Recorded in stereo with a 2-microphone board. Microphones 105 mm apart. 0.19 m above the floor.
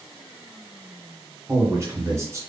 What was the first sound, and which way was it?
A man speaking, 30° right (ahead or behind).